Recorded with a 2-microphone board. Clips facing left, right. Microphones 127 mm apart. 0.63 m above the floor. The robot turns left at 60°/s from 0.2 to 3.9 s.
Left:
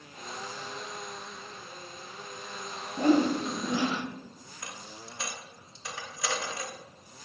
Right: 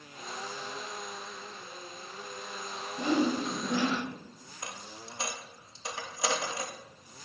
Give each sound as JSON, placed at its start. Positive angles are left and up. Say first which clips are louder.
{"t": 3.0, "sound": "a whoosh", "louder": "left 4 dB", "azimuth_deg": 65, "distance_m": 0.7}
{"t": 4.6, "sound": "a dropped coin", "louder": "right 1 dB", "side_deg": -25, "distance_m": 0.9}